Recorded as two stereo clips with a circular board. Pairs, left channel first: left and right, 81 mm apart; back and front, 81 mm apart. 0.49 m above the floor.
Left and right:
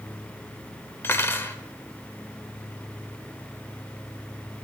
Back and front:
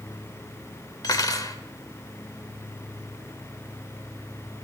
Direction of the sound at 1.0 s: 145° left.